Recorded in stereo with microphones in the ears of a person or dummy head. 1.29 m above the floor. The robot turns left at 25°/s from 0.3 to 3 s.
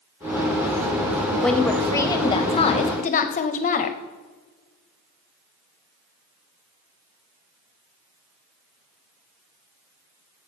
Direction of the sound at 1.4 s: 175° left.